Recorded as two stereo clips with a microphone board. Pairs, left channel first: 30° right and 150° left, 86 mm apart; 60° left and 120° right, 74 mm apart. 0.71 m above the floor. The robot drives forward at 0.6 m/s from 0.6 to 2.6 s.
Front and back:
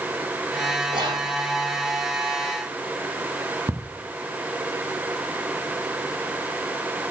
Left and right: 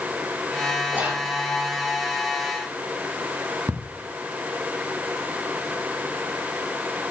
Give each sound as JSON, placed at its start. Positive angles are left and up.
{"t": 0.9, "sound": "whispering", "azimuth_deg": 170, "distance_m": 1.4}
{"t": 3.7, "sound": "ticking", "azimuth_deg": -155, "distance_m": 0.8}